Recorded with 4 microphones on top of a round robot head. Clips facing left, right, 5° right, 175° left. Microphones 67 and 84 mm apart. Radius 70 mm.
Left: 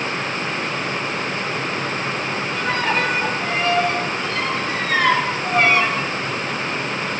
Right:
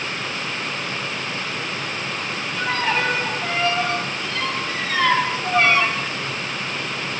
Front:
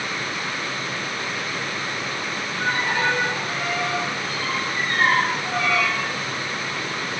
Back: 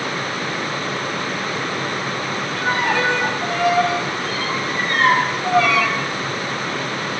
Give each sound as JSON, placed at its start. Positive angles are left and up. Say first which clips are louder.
{"t": 2.6, "sound": "a violin", "louder": "even, back 4 dB", "azimuth_deg": 150, "distance_m": 6.5}